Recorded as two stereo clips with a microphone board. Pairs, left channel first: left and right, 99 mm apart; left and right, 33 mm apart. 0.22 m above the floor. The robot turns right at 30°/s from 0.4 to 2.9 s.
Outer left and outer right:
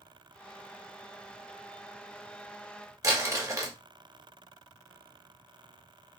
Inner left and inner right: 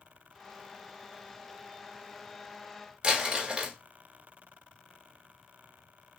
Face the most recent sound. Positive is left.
turn(degrees=-35)  # may be behind; listen again after turning